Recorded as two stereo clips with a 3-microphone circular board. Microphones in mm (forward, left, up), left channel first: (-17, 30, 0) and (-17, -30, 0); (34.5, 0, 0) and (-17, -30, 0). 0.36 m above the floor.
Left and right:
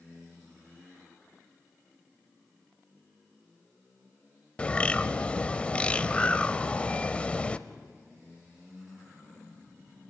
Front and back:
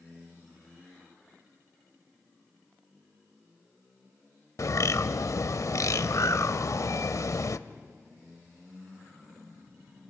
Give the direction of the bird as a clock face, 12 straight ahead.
11 o'clock.